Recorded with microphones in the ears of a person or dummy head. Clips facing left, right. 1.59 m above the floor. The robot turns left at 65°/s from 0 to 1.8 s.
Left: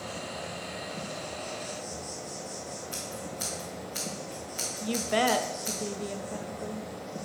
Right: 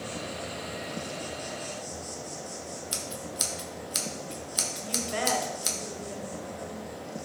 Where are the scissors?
55° right (ahead or behind), 1.6 m.